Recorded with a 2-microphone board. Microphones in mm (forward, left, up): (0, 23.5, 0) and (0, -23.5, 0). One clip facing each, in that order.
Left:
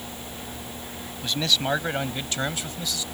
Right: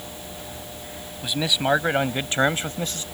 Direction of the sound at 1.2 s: 10° right (ahead or behind).